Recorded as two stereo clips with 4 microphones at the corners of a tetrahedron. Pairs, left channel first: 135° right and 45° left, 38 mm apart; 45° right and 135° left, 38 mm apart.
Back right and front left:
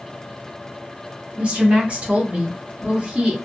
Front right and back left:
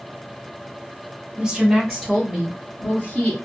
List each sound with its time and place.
1.4 s a woman speaking: 70° left, 1.6 m; by 3.3 s 15° right, 1.9 m